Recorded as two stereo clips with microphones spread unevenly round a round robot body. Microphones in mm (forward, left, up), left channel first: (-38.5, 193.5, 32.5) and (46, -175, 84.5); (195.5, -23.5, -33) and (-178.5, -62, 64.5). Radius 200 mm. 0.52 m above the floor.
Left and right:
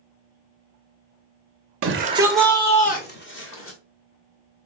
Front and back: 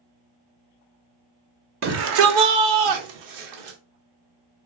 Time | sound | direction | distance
1.8 | a shout | 115° right | 0.7 m